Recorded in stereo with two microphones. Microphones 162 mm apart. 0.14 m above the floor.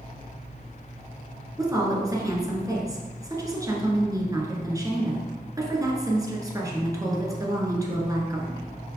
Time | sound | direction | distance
1.6 | a woman speaking | 20° right (ahead or behind) | 1.8 m